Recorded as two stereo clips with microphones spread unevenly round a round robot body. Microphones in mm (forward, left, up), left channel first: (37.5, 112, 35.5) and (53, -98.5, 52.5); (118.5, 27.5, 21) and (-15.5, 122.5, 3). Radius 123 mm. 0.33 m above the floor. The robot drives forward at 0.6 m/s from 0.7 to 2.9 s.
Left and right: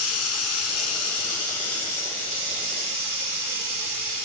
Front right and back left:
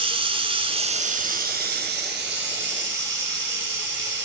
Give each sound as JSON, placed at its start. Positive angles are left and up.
{"t": 0.0, "sound": "running water", "azimuth_deg": 85, "distance_m": 0.9}